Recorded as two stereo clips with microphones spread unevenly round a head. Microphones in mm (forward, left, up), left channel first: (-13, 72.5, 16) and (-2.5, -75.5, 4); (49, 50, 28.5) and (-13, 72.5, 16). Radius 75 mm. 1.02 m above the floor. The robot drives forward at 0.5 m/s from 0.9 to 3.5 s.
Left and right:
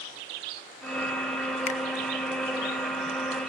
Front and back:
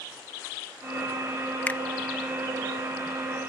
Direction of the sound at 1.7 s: 50° left.